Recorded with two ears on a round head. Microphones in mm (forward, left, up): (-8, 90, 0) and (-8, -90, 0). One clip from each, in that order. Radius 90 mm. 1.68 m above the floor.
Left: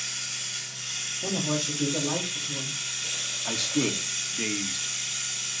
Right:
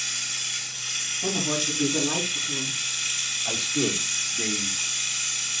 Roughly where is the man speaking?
Left.